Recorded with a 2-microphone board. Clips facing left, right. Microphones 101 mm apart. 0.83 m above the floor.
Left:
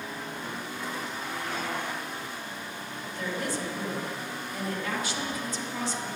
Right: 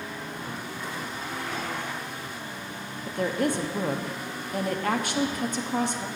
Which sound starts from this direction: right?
A woman speaking, at 3.1 s.